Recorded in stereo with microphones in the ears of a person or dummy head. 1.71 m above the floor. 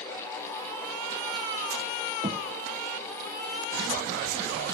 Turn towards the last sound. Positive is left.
turn(degrees=-30)  # may be behind; listen again after turning